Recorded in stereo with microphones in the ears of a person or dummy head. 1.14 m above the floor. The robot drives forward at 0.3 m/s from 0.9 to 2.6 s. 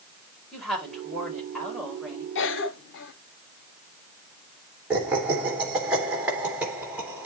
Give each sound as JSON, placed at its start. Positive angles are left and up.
{"t": 0.5, "sound": "a woman speaking", "side_deg": 0, "distance_m": 4.5}
{"t": 2.4, "sound": "a cough", "side_deg": 65, "distance_m": 0.9}
{"t": 4.9, "sound": "laughter", "side_deg": -10, "distance_m": 1.8}